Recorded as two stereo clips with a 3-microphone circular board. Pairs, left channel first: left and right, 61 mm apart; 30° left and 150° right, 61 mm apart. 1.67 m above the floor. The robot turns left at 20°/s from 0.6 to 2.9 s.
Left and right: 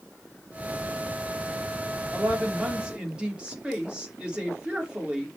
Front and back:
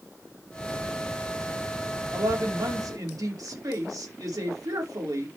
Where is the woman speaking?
150° right, 4.5 m; by 5.3 s 165° right, 4.5 m.